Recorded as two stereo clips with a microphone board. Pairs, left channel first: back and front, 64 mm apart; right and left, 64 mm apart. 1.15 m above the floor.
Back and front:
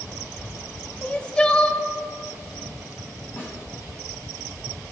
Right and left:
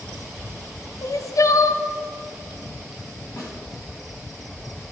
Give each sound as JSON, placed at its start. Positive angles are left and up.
{"t": 1.0, "sound": "crying", "azimuth_deg": -110, "distance_m": 0.6}
{"t": 3.4, "sound": "a snare drum", "azimuth_deg": -130, "distance_m": 2.5}